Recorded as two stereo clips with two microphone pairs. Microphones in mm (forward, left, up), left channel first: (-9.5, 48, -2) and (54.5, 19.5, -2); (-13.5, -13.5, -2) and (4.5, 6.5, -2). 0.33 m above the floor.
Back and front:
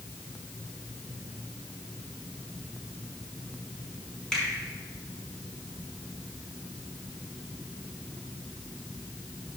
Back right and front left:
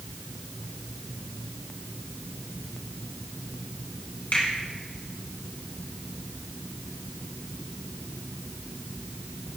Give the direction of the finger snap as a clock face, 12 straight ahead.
4 o'clock.